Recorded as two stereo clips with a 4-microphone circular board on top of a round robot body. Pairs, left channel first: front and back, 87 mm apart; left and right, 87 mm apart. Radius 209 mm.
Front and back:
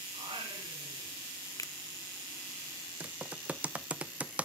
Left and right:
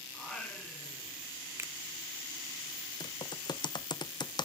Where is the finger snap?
35° right, 0.5 m.